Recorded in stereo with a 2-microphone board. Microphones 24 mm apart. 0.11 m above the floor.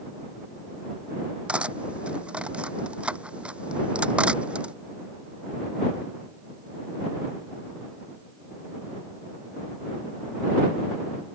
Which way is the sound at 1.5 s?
55° right (ahead or behind).